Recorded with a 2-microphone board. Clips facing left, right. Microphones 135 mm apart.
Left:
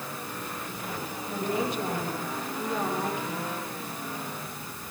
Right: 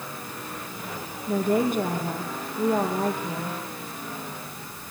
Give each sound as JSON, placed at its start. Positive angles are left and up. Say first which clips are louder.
{"t": 1.3, "sound": "a woman speaking", "louder": "right 7 dB", "side_deg": -60, "distance_m": 6.5}